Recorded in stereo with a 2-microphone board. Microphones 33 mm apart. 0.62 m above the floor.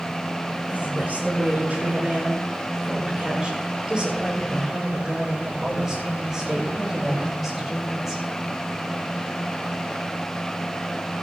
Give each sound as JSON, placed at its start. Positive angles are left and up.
{"t": 0.7, "sound": "a woman speaking", "side_deg": -50, "distance_m": 8.0}